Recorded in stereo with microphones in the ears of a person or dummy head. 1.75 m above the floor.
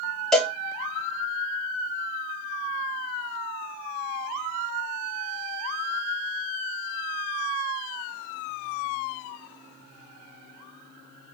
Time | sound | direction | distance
0.3 | a cowbell | 5° left (ahead or behind) | 0.9 m